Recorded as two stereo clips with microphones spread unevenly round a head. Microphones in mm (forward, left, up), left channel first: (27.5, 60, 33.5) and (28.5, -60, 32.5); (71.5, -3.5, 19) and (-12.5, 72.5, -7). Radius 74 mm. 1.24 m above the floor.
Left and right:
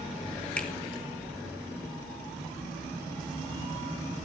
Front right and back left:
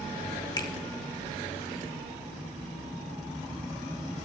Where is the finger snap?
10° left, 4 m.